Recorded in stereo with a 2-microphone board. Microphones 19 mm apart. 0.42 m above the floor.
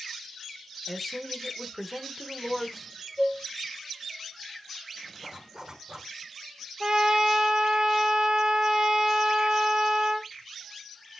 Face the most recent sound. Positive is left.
turn(degrees=-55)  # may be behind; listen again after turning